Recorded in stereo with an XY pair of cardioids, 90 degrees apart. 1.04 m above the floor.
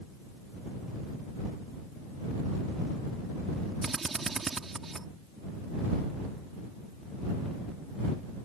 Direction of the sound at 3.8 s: 35° right.